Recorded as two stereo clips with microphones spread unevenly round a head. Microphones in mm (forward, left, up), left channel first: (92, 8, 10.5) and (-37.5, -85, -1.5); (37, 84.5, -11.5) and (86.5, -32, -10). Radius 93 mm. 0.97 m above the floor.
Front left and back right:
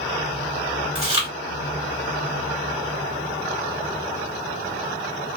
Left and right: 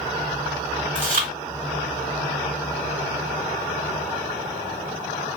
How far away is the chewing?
About 1.7 m.